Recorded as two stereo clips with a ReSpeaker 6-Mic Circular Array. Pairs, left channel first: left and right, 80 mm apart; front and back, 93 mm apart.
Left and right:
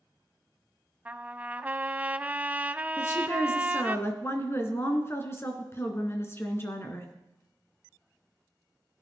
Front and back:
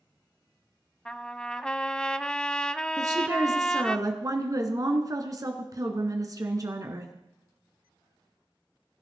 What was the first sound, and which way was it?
A trumpet, 65° right.